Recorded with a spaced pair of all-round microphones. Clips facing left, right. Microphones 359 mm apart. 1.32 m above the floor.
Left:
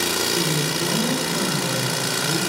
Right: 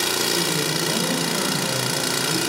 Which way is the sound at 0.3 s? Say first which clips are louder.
Left 1 dB; 5° left (ahead or behind).